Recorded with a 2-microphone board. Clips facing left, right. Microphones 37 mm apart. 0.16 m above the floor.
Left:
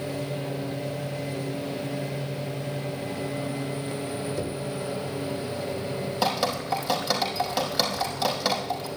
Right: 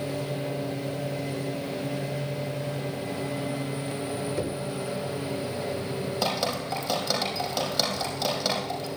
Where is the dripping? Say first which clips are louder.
Left 3 dB; 10° left (ahead or behind), 5 m.